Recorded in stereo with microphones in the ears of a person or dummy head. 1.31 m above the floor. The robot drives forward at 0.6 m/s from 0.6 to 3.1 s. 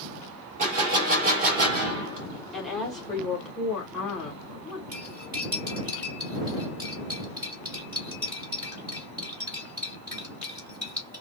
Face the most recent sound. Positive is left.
turn(degrees=-20)  # may be behind; listen again after turning